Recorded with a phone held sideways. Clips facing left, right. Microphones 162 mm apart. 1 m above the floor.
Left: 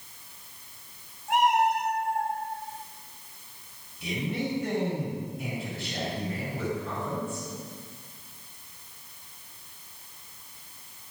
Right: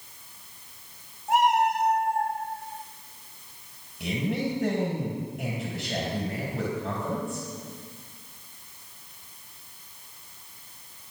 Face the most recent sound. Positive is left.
turn(degrees=-75)  # may be behind; listen again after turning